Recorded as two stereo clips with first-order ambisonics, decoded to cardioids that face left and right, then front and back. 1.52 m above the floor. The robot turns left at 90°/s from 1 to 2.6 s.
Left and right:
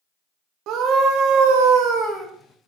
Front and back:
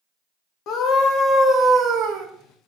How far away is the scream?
About 1.4 m.